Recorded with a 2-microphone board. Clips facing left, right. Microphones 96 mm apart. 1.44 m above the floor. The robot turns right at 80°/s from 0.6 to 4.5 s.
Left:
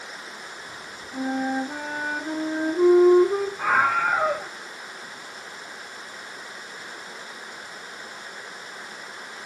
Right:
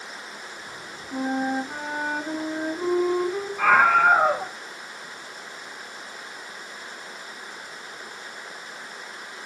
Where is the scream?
100° right, 1.9 m; by 4.5 s 30° right, 1.9 m.